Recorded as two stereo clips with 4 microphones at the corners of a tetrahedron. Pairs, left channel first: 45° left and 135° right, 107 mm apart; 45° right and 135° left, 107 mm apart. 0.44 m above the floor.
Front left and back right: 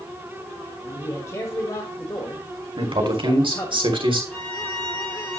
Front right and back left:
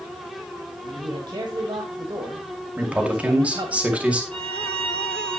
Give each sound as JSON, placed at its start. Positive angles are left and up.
{"t": 0.8, "sound": "a man speaking", "azimuth_deg": 100, "distance_m": 1.9}
{"t": 2.8, "sound": "a man speaking", "azimuth_deg": -150, "distance_m": 2.0}
{"t": 4.3, "sound": "a violin", "azimuth_deg": 125, "distance_m": 4.5}